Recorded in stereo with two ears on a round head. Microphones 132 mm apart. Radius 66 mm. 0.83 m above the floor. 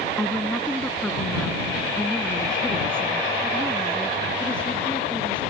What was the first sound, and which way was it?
A woman speaking, 5° left (ahead or behind).